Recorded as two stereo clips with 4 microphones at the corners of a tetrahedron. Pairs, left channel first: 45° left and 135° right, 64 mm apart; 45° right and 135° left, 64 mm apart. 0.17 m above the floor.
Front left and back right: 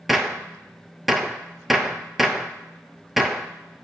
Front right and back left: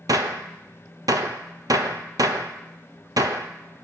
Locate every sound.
0.1 s a gunshot: 140° left, 0.5 m